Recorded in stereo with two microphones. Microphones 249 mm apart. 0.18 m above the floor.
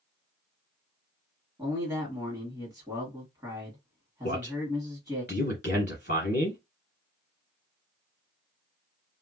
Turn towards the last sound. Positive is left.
turn(degrees=40)  # may be behind; listen again after turning